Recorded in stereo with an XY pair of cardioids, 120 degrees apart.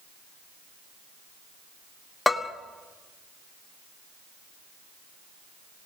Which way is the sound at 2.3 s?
10° left.